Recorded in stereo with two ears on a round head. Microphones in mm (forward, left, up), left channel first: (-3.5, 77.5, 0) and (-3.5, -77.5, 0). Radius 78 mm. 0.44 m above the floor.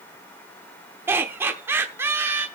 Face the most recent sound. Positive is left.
turn(degrees=-15)  # may be behind; listen again after turning